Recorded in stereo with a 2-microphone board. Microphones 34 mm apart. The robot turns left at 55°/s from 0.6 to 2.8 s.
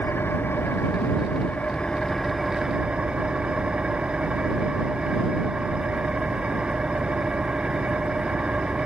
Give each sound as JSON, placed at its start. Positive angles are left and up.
{"t": 0.0, "sound": "an engine running", "azimuth_deg": 95}